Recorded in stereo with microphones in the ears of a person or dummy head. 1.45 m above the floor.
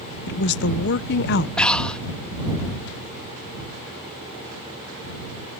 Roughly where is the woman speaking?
Left.